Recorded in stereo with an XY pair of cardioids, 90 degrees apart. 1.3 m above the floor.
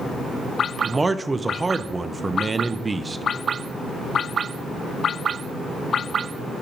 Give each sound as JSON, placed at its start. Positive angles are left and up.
{"t": 0.8, "sound": "a man speaking", "azimuth_deg": -25, "distance_m": 0.5}